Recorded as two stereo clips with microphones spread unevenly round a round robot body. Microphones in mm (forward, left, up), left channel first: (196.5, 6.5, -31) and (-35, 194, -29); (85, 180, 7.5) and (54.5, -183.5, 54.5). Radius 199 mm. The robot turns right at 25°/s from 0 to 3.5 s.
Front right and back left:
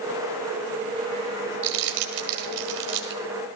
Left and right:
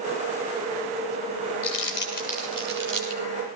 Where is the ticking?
No ticking in this recording.